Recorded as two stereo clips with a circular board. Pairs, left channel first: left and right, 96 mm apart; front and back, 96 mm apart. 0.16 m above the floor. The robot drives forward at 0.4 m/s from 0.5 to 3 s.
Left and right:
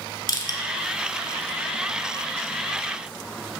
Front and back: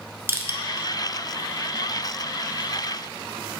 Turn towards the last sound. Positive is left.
turn(degrees=155)